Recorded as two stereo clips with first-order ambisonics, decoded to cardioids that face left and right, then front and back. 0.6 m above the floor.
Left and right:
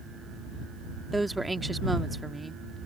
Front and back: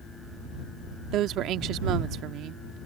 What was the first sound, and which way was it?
A woman speaking, 170° right.